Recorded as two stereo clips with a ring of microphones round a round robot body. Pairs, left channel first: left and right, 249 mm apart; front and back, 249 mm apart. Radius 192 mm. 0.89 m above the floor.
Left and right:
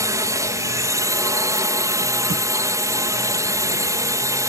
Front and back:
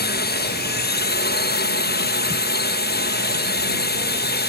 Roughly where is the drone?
Ahead.